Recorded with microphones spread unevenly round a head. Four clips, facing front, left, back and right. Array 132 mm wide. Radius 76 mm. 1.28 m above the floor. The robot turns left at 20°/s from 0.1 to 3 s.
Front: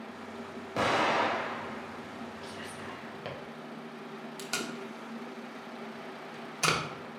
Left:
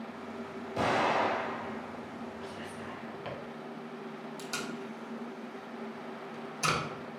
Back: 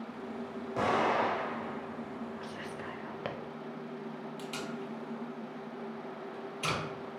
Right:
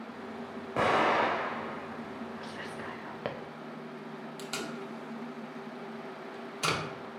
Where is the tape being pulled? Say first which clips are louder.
Right 1 dB, front 3 dB; 20° right, 1.0 m.